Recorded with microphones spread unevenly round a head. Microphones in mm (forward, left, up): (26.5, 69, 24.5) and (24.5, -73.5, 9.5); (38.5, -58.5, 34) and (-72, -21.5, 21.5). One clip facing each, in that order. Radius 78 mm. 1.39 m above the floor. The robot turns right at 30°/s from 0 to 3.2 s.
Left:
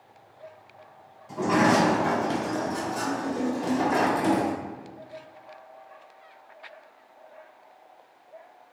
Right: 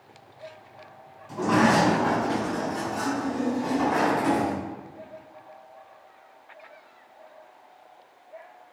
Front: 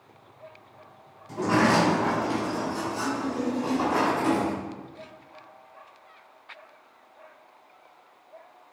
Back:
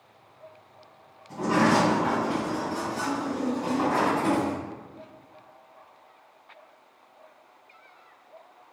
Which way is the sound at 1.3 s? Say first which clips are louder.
Even, even; 5° left.